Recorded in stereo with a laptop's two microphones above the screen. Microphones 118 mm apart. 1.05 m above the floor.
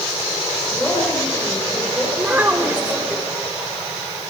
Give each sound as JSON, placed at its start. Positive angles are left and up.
{"t": 0.7, "sound": "a woman speaking", "side_deg": 10, "distance_m": 4.5}
{"t": 2.2, "sound": "a child speaking", "side_deg": -15, "distance_m": 2.5}